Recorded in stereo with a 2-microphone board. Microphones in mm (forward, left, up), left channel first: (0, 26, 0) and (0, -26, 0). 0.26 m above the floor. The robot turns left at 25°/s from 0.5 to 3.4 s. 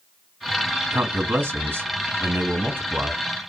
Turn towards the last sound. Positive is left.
turn(degrees=-120)